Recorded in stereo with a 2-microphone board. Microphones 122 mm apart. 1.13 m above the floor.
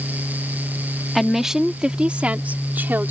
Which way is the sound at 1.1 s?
Centre (ahead or behind).